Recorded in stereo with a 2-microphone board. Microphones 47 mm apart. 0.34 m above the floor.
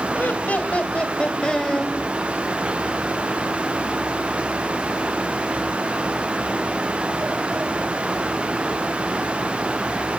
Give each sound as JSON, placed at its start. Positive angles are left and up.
{"t": 0.1, "sound": "laughter", "side_deg": 40, "distance_m": 1.6}